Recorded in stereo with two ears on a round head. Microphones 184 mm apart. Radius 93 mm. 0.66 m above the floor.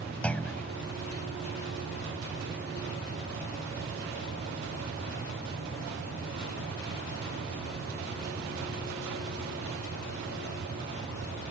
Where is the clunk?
5° left (ahead or behind).